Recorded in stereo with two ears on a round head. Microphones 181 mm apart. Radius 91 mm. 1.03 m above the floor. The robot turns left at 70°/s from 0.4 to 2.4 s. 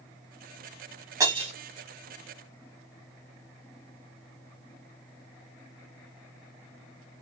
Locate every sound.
1.2 s breaking glass: 15° right (ahead or behind), 2 m; by 1.5 s 35° right (ahead or behind), 2 m